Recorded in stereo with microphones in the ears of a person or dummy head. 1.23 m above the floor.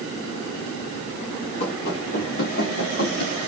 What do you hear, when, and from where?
1.6 s running footsteps: 45° left (ahead or behind), 5.5 m; by 3.4 s 65° left (ahead or behind), 4.5 m